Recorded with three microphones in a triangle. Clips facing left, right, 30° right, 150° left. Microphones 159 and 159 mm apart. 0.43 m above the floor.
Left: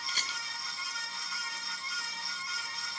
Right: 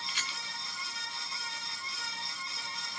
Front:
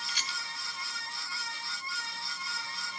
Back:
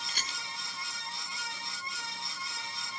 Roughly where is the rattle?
Behind left.